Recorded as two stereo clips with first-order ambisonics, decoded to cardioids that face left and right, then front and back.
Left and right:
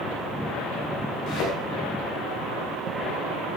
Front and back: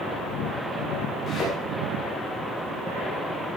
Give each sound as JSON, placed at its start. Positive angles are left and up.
{"t": 1.3, "sound": "a thud", "azimuth_deg": 60, "distance_m": 5.0}